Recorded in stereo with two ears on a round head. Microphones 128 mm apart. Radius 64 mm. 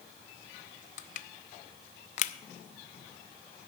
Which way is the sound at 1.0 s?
50° left (ahead or behind).